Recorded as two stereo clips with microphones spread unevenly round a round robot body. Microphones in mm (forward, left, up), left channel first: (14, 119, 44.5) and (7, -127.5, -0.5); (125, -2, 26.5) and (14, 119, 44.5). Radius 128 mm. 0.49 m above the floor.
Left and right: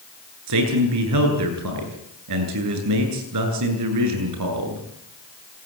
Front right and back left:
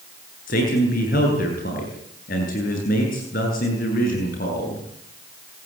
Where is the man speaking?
95° right, 8.5 m.